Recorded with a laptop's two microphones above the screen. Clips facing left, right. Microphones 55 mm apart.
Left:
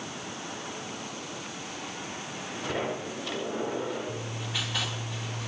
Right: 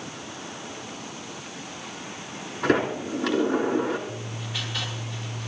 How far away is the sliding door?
About 3.5 m.